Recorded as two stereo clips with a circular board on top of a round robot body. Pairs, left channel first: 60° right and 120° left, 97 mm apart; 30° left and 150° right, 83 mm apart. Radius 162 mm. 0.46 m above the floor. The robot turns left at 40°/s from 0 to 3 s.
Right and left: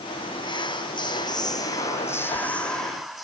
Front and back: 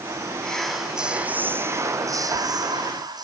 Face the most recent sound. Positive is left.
turn(degrees=-150)